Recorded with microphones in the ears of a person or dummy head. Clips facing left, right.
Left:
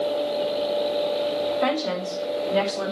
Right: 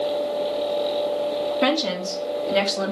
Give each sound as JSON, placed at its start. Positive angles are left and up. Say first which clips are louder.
{"t": 1.6, "sound": "a woman speaking", "louder": "right 2 dB", "side_deg": -40, "distance_m": 2.5}